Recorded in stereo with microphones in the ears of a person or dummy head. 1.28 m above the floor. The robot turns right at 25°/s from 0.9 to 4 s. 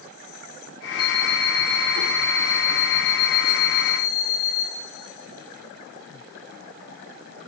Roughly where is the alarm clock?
Behind left.